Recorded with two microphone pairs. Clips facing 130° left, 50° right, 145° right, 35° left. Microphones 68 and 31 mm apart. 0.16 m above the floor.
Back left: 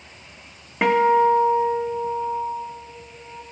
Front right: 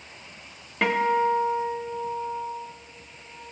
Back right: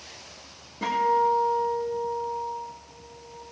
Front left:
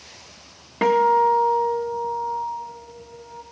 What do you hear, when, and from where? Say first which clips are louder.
0.8 s a guitar: back left 6 dB, front left 6 dB; 55° left, 1.9 m